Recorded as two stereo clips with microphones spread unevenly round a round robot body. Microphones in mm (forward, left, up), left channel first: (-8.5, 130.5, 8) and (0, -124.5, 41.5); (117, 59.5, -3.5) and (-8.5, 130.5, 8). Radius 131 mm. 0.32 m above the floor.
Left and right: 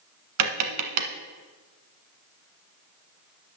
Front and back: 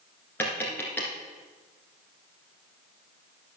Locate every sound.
0.4 s tapping: 115° right, 1.4 m